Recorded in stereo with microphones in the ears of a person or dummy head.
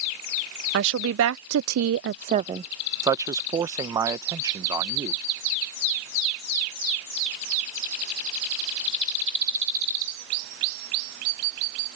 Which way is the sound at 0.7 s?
60° right (ahead or behind).